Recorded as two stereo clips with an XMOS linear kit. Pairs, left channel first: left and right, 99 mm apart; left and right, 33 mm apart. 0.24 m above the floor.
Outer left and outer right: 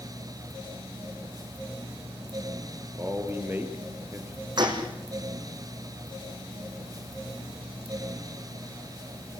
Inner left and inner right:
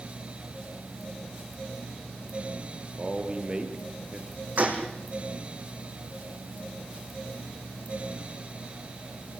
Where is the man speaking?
25° right (ahead or behind), 5 m.